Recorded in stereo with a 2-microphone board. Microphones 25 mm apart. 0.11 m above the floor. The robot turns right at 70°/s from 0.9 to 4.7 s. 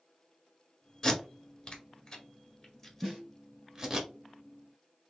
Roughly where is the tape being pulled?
Left.